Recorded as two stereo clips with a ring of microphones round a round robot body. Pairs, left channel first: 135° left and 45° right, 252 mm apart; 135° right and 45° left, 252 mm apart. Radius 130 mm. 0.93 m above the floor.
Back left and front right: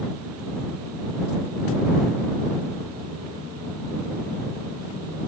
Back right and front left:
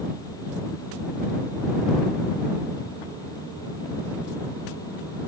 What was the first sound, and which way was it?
Only background noise.